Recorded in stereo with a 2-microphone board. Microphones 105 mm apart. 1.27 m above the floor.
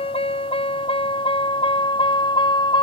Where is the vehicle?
65° left (ahead or behind); by 2.8 s 50° left (ahead or behind).